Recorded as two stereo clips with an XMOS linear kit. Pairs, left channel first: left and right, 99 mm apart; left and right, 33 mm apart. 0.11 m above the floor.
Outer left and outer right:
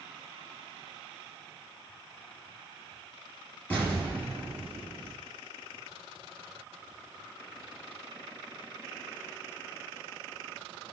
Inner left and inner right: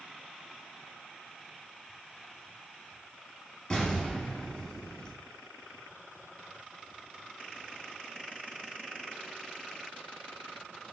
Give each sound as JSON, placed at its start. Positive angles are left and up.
{"t": 3.7, "sound": "an explosion", "side_deg": 20, "distance_m": 2.0}